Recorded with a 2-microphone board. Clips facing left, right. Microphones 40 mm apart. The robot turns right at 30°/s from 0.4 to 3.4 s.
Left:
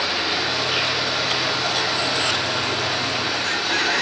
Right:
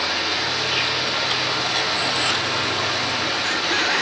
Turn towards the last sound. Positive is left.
turn(degrees=-105)